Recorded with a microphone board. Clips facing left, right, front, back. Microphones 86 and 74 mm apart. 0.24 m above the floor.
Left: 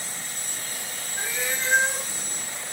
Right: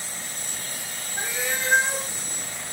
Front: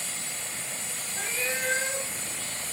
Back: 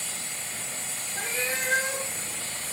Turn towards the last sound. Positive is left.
turn(degrees=-170)